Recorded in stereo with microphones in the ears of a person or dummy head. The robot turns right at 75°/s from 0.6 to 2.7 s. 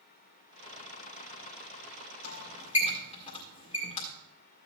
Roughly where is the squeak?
Left.